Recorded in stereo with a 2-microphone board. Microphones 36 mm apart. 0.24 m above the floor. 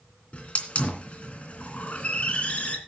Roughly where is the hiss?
Left.